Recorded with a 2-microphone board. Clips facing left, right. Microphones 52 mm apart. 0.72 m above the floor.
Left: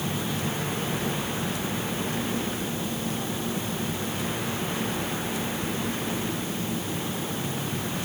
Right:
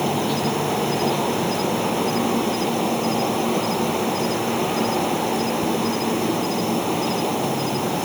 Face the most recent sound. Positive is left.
turn(degrees=-85)